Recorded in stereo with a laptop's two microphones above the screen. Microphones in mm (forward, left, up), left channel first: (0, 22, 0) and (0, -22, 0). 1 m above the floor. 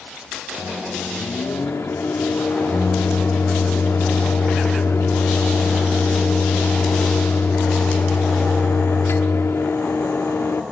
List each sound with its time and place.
0.6 s a microwave: 90° left, 1.6 m